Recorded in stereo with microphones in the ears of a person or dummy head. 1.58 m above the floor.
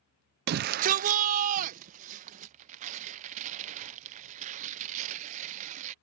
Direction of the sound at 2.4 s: 40° right (ahead or behind).